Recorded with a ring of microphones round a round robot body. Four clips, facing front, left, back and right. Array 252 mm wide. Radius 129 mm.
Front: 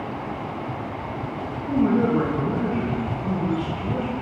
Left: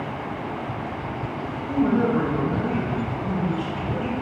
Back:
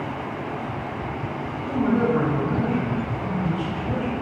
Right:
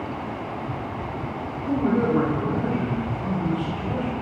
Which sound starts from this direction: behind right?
A man speaking, at 1.7 s.